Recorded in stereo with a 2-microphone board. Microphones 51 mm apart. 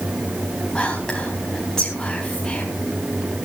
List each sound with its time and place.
0.8 s whispering: 15° left (ahead or behind), 2.5 m